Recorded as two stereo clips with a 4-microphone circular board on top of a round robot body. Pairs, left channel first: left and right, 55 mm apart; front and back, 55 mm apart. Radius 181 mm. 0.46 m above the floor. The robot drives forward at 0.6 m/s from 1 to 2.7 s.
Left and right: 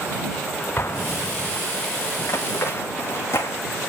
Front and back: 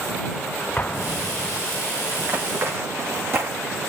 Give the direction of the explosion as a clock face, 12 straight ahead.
10 o'clock.